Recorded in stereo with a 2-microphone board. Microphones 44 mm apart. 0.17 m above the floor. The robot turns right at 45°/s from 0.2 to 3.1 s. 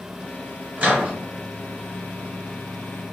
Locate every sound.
0.8 s a microwave: 20° right (ahead or behind), 1.4 m